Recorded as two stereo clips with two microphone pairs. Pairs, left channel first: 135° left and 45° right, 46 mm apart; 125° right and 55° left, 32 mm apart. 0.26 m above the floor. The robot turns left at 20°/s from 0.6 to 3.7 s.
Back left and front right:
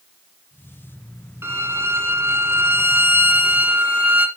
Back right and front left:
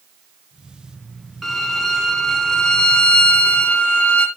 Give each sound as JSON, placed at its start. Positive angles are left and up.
{"t": 1.4, "sound": "a violin", "azimuth_deg": -35, "distance_m": 1.8}